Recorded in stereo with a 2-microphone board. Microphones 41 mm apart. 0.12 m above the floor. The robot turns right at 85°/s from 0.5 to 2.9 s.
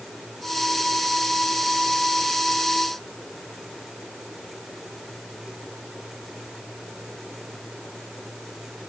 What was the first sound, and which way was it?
Only background noise.